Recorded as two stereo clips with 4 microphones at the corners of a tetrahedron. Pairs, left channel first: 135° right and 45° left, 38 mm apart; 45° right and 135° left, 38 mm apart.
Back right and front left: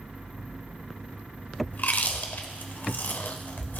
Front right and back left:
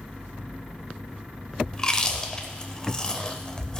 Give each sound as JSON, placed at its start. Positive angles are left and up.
{"t": 1.7, "sound": "chewing", "azimuth_deg": -110, "distance_m": 0.6}